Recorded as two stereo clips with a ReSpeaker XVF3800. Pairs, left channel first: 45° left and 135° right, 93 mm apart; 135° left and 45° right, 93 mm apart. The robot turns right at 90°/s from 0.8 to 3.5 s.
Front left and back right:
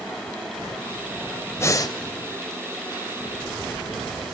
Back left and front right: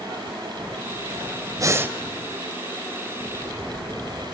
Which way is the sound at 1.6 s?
10° right.